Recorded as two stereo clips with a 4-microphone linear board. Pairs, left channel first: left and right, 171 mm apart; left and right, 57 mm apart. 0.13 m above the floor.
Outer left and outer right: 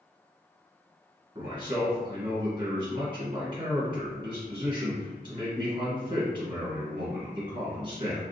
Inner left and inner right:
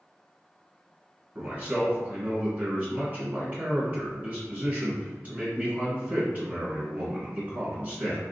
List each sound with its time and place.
1.4 s a man speaking: 30° right (ahead or behind), 1.5 m